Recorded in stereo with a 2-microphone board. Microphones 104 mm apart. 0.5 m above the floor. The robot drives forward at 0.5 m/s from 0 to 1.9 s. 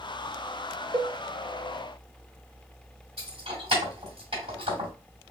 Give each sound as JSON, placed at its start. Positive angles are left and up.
{"t": 0.9, "sound": "a cowbell", "side_deg": -55, "distance_m": 0.6}
{"t": 3.2, "sound": "keys jangling", "side_deg": -75, "distance_m": 1.9}